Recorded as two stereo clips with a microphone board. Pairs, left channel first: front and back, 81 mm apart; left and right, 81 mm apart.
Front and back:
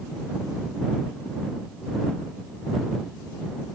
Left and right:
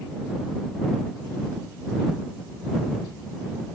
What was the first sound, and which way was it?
Only background noise.